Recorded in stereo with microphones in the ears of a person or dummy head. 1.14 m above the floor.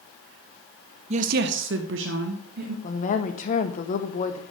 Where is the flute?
No flute in this recording.